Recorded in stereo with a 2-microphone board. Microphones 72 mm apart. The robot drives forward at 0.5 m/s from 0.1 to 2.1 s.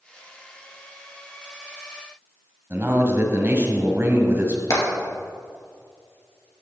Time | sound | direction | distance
2.7 | a man speaking | 30° right (ahead or behind) | 1.7 m
4.7 | hammering | 50° left (ahead or behind) | 3 m